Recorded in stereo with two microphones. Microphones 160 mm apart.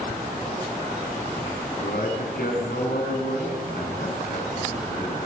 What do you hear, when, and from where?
1.8 s a man speaking: 70° left (ahead or behind), 7.5 m; by 5.3 s 80° left, 8 m